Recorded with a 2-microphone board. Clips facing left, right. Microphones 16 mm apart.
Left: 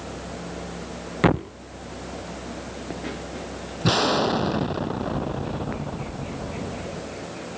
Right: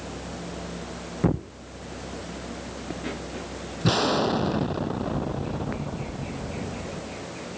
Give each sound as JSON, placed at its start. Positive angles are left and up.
{"t": 1.2, "sound": "a thud", "side_deg": 75}
{"t": 3.8, "sound": "an explosion", "side_deg": 15}